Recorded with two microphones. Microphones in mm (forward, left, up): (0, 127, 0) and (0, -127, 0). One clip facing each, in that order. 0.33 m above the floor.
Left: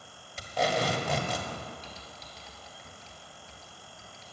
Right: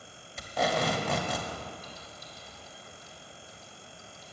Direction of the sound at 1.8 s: 85° left.